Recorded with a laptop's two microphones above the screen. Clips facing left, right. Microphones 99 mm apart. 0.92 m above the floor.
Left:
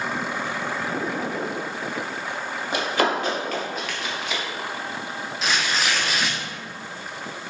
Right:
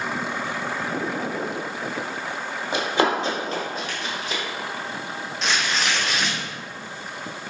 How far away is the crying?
I don't hear crying.